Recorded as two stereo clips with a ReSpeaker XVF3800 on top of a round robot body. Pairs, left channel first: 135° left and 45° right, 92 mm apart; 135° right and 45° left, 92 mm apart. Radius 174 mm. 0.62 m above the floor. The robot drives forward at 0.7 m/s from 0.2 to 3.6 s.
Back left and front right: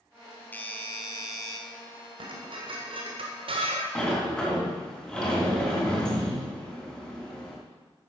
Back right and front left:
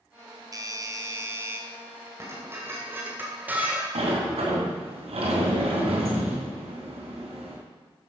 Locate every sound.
0.5 s a doorbell: 75° left, 1.9 m; by 1.6 s 105° left, 1.9 m
2.2 s dishes clattering: 20° right, 2.5 m; by 3.9 s 30° right, 1.8 m
4.0 s a sliding door: 55° left, 3.5 m